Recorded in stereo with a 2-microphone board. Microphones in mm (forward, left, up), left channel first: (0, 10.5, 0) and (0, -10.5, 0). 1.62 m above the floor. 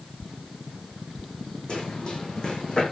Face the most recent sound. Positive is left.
turn(degrees=50)  # may be behind; listen again after turning